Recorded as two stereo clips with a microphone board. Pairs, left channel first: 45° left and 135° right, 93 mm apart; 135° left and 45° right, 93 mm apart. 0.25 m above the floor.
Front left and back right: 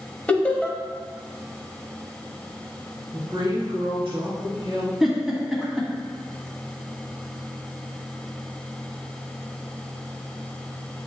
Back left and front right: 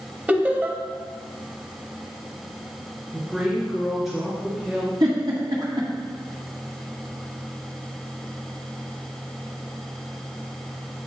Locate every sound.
0.3 s laughter: 5° right, 1.0 m
3.1 s a woman speaking: 135° right, 2 m
5.0 s a giggle: 50° right, 1.6 m